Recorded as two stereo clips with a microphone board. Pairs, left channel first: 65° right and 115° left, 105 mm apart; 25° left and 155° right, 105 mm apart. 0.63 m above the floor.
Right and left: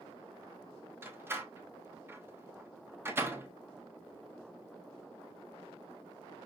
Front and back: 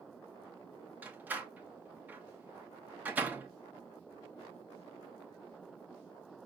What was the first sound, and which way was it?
A door slam, 150° left.